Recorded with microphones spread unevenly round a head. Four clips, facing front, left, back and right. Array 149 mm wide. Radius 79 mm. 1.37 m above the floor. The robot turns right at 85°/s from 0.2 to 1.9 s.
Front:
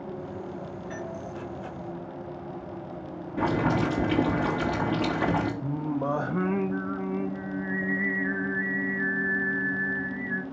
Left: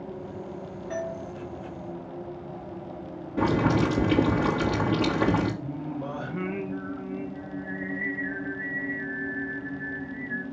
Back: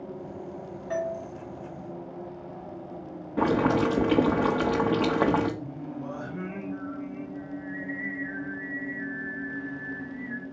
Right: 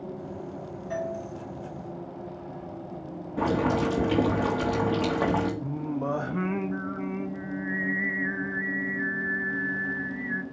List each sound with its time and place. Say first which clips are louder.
0.9 s a doorbell: right 1 dB, back 9 dB; 175° left, 3.5 m; by 1.2 s 155° right, 3.5 m
3.4 s boiling: left 2 dB, back 2 dB; straight behind, 3.5 m
5.6 s singing: right 3 dB, front 7 dB; 25° right, 1.0 m